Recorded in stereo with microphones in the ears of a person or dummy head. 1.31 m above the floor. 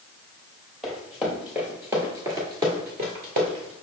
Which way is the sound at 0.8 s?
Centre (ahead or behind).